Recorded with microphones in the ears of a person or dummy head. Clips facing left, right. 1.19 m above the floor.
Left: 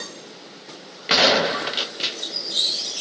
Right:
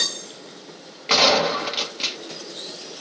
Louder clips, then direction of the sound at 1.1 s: Even; 10° left (ahead or behind).